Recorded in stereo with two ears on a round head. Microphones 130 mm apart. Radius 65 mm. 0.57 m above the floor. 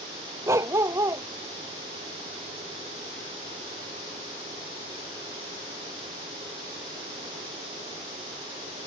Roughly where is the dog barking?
Centre.